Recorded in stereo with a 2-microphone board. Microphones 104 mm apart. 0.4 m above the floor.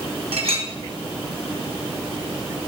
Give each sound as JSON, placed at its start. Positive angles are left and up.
{"t": 0.3, "sound": "a clink", "side_deg": -75, "distance_m": 1.9}